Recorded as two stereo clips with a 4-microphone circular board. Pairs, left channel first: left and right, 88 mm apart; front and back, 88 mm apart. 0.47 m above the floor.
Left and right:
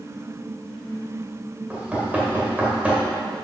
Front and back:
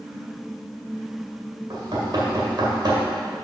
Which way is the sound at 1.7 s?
160° right.